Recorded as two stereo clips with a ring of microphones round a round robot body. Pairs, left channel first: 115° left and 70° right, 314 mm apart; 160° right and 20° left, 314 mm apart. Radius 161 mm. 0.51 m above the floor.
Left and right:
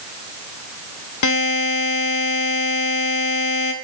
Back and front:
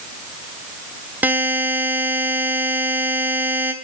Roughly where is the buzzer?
Left.